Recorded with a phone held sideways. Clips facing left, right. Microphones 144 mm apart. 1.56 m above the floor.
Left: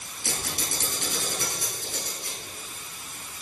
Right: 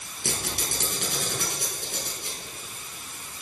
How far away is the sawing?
No sawing in this recording.